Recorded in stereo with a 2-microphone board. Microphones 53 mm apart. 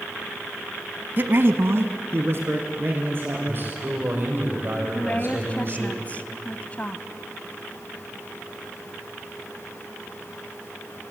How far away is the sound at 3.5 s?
About 7.5 m.